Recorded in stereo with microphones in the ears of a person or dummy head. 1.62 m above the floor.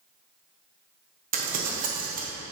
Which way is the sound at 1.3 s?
40° right (ahead or behind).